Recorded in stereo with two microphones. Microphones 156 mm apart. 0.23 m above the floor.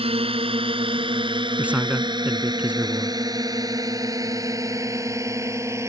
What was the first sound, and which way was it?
A drone, 40° right (ahead or behind).